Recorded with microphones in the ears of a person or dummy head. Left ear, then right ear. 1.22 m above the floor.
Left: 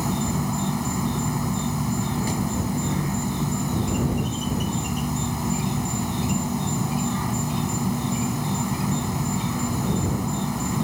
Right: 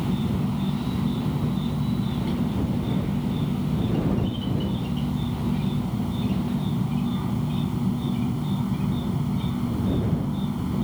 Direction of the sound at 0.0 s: 55° left (ahead or behind).